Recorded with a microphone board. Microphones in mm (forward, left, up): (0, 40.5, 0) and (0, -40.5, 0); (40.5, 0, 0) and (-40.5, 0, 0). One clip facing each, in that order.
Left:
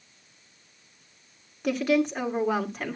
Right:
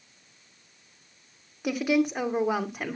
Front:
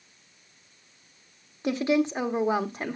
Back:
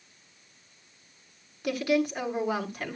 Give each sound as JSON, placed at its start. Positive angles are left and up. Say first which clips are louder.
{"t": 1.6, "sound": "a woman speaking", "louder": "left 1 dB, front 2 dB", "azimuth_deg": -15, "distance_m": 1.4}